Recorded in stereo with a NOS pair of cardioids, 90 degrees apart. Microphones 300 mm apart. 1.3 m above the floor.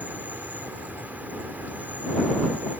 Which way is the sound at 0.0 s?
5° right.